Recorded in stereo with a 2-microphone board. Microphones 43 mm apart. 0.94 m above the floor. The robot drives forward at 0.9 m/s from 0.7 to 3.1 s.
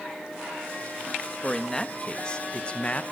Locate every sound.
1.4 s a man speaking: 15° left (ahead or behind), 1.7 m; by 3.0 s 30° left (ahead or behind), 0.8 m